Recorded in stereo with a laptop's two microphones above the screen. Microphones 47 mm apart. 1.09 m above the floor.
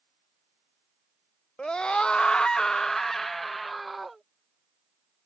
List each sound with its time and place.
1.6 s a scream: 20° left (ahead or behind); by 4.2 s 5° right (ahead or behind)